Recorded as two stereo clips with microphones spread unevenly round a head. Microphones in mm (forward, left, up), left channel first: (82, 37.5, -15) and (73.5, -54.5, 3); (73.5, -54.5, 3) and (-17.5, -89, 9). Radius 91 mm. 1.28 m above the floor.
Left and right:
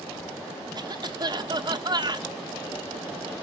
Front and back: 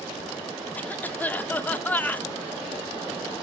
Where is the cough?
55° right, 1.4 m.